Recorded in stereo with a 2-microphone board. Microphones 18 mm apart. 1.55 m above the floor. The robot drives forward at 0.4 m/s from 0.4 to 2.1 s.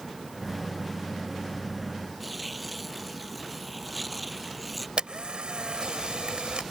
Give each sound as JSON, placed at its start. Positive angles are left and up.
{"t": 2.2, "sound": "tearing paper", "side_deg": -5}
{"t": 5.0, "sound": "a camera shutter", "side_deg": -70}